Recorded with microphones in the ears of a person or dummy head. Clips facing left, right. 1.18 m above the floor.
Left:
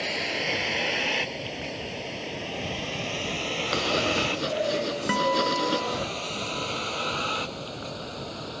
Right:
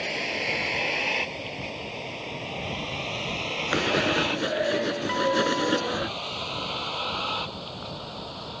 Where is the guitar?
45° left (ahead or behind).